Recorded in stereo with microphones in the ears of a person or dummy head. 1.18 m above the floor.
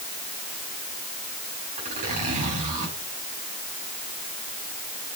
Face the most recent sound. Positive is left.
turn(degrees=-35)  # may be behind; listen again after turning